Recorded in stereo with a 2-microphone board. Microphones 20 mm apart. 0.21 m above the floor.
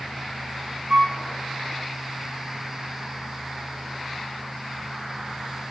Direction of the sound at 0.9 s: 35° right (ahead or behind).